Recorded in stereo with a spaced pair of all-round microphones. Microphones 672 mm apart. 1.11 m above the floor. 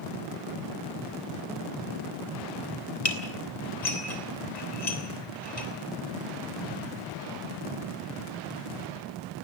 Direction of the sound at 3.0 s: 80° left.